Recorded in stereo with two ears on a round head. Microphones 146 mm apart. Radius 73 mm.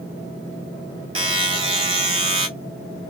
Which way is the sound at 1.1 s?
35° right (ahead or behind).